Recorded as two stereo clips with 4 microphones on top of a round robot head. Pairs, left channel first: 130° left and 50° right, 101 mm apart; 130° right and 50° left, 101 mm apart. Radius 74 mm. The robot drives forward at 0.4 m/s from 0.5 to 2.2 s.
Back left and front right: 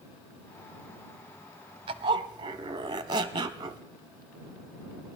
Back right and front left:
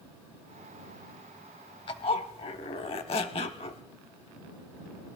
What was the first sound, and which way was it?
A zipper, 90° right.